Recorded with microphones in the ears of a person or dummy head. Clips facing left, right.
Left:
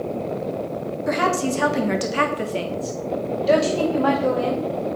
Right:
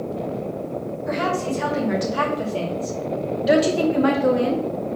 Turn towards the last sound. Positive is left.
turn(degrees=-40)  # may be behind; listen again after turning